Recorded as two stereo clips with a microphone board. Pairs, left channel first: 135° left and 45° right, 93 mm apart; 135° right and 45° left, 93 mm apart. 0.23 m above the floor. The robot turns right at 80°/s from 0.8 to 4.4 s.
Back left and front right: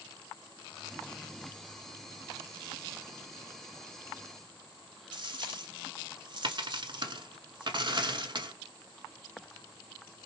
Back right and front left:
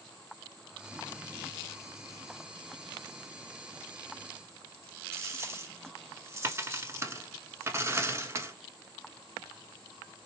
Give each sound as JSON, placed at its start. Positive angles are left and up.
{"t": 5.1, "sound": "a dropped coin", "azimuth_deg": -15, "distance_m": 0.8}